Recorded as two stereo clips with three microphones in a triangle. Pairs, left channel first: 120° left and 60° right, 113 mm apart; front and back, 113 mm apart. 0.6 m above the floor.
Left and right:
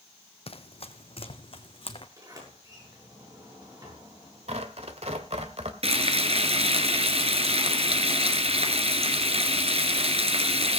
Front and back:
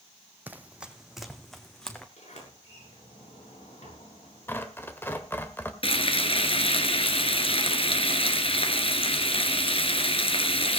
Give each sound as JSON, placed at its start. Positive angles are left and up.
{"t": 0.5, "sound": "running footsteps", "azimuth_deg": 110, "distance_m": 1.2}
{"t": 2.2, "sound": "a sliding door", "azimuth_deg": -5, "distance_m": 7.5}
{"t": 4.5, "sound": "tearing paper", "azimuth_deg": -70, "distance_m": 1.6}
{"t": 5.8, "sound": "frying", "azimuth_deg": -35, "distance_m": 1.8}